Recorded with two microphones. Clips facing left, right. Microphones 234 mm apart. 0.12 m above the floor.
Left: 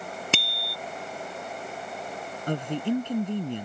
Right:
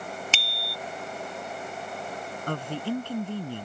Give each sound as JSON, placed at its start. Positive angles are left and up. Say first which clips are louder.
{"t": 0.3, "sound": "a bicycle bell", "louder": "left 5 dB", "side_deg": 65}
{"t": 2.5, "sound": "a woman speaking", "louder": "left 4 dB", "side_deg": 20}